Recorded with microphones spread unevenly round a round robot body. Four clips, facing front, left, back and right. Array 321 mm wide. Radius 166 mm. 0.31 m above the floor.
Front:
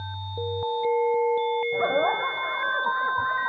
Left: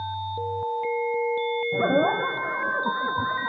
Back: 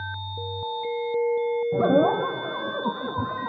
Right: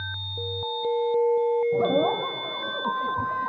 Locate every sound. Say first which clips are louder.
1.7 s laughter: even, back 7 dB; 170° left